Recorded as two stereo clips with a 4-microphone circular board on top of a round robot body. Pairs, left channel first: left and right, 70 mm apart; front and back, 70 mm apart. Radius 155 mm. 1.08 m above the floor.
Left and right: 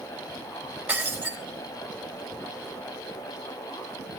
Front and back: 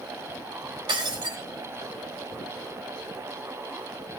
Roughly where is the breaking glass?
Behind.